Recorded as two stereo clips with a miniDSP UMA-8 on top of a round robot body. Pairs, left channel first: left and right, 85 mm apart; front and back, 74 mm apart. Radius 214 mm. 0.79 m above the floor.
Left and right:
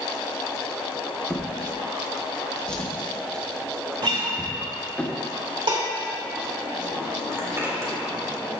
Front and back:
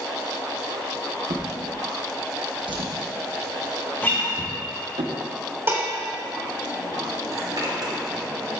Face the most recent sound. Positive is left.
turn(degrees=-150)